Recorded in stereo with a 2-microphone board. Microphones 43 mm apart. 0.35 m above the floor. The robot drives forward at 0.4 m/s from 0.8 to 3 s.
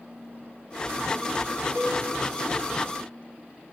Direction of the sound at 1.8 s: 60° right (ahead or behind).